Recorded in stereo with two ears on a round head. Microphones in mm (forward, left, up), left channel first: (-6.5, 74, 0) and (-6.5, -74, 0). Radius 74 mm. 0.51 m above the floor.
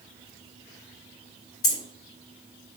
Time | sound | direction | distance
1.6 | keys jangling | 60° left (ahead or behind) | 1.8 m